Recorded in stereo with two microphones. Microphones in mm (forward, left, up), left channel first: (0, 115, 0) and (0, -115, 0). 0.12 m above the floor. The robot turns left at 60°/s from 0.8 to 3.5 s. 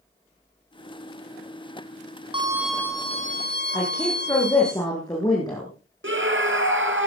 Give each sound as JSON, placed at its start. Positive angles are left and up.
{"t": 2.3, "sound": "a violin", "azimuth_deg": -160, "distance_m": 2.0}
{"t": 3.7, "sound": "a woman speaking", "side_deg": 15, "distance_m": 7.5}
{"t": 6.0, "sound": "a scream", "side_deg": -55, "distance_m": 2.0}